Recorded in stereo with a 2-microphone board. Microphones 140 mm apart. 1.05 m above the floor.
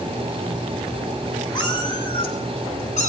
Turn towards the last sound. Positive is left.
turn(degrees=55)  # may be behind; listen again after turning